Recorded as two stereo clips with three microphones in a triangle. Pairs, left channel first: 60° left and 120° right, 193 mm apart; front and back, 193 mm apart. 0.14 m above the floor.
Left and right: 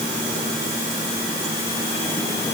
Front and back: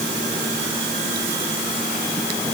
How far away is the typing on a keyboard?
No typing on a keyboard in this recording.